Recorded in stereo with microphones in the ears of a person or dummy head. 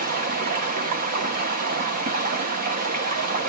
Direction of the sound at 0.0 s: 40° right (ahead or behind).